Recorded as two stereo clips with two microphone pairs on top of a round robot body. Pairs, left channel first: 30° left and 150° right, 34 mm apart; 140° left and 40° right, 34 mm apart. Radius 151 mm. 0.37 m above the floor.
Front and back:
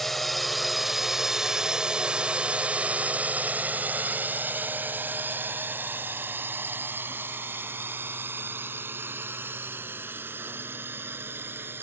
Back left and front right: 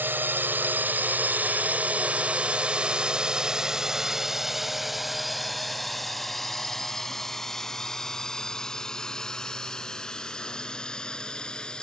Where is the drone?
50° right; by 11.8 s 155° right.